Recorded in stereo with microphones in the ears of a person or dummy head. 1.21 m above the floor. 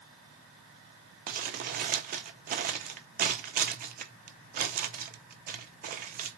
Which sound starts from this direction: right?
Crumpling, at 1.3 s.